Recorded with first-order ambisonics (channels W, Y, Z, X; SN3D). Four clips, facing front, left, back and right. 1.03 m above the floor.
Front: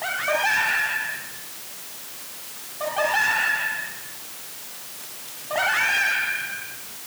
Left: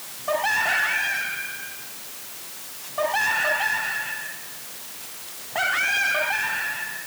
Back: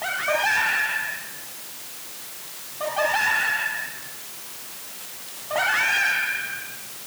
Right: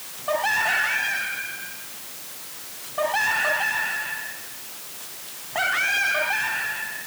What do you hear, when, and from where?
Only background noise.